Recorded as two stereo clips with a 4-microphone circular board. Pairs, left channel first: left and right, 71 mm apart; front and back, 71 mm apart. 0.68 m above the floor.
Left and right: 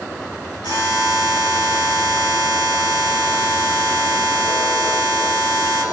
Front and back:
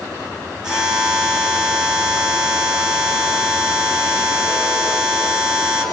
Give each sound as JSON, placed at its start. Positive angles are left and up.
{"t": 0.6, "sound": "a buzzer", "azimuth_deg": 95, "distance_m": 6.5}